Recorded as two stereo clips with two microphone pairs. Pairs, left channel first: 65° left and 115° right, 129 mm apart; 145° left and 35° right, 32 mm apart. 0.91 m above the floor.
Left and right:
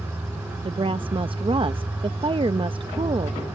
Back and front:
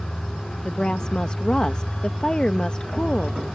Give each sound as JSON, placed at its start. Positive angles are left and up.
{"t": 0.7, "sound": "a woman speaking", "azimuth_deg": -155}